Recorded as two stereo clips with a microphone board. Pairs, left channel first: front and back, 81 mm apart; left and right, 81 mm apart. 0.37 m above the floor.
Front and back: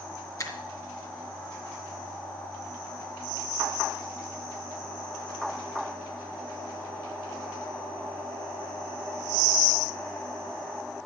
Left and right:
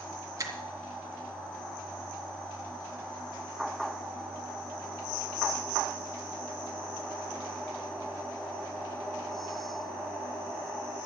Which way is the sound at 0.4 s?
45° right.